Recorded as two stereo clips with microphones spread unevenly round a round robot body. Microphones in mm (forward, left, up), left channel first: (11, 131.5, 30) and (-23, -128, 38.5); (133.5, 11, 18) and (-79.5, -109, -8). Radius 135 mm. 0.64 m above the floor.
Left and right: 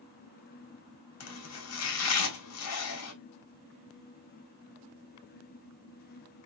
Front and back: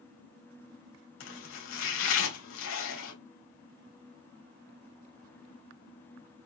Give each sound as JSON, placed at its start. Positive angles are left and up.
{"t": 1.2, "sound": "chopping", "azimuth_deg": 60, "distance_m": 4.0}